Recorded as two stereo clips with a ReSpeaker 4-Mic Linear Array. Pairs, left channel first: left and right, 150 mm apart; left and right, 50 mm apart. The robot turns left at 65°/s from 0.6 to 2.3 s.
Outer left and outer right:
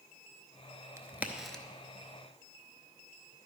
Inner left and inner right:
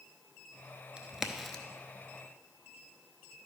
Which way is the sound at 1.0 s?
20° right (ahead or behind).